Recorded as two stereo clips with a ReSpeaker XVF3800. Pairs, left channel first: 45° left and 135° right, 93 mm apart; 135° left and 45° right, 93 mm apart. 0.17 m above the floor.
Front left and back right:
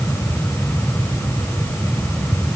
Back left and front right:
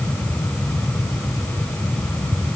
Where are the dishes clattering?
I don't hear dishes clattering.